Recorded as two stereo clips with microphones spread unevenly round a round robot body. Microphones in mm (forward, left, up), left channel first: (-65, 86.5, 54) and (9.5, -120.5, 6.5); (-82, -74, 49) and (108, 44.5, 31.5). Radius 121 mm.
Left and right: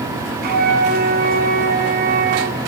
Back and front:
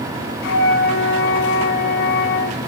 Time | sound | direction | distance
0.4 | a flute | 120° right | 0.7 m